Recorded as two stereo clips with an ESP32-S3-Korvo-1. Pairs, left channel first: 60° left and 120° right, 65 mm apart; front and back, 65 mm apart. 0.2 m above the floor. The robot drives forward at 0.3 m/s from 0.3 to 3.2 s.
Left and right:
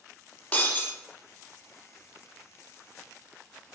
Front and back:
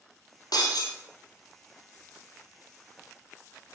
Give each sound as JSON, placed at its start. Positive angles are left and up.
{"t": 0.5, "sound": "breaking glass", "azimuth_deg": -10, "distance_m": 1.3}